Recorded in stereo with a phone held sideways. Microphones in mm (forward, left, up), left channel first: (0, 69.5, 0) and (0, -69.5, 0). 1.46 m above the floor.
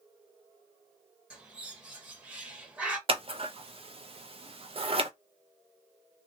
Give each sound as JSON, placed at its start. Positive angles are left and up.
{"t": 1.3, "sound": "a bird", "side_deg": -10, "distance_m": 1.2}
{"t": 3.1, "sound": "scissors", "side_deg": -45, "distance_m": 0.6}